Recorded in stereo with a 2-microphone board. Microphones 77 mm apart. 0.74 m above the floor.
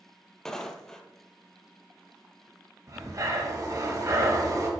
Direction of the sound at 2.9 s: 50° right (ahead or behind).